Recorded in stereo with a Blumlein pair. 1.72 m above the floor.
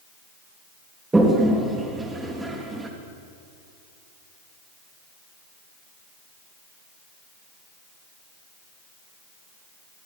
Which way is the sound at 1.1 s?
10° right.